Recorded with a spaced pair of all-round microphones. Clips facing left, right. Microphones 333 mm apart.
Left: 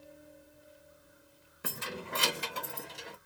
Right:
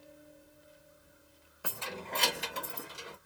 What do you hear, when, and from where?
1.6 s keys jangling: 30° left (ahead or behind), 0.6 m; by 3.2 s 10° right (ahead or behind), 0.9 m